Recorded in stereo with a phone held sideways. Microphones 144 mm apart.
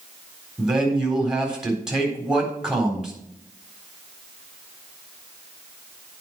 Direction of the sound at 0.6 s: 5° right (ahead or behind).